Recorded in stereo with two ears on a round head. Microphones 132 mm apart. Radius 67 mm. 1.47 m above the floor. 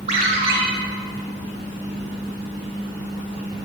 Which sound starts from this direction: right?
A ringtone, at 0.1 s.